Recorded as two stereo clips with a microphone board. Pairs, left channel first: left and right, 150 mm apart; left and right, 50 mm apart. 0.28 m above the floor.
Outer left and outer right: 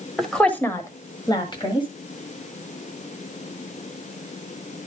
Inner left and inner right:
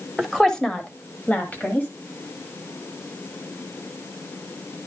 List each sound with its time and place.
0.2 s a woman speaking: centre (ahead or behind), 1.2 m; by 1.9 s 30° left (ahead or behind), 1.6 m